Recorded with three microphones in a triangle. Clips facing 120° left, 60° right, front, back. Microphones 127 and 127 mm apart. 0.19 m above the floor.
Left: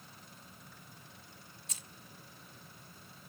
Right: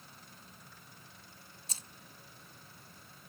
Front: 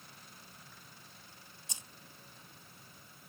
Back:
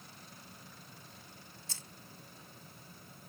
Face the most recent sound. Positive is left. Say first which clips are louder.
# right 3 dB, front 1 dB
turn(degrees=-55)